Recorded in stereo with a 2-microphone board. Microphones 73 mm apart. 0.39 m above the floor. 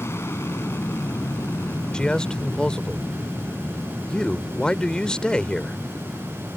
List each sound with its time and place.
0.0 s an aircraft: 35° left (ahead or behind); by 6.6 s 30° left (ahead or behind)
1.9 s a man speaking: 15° left (ahead or behind)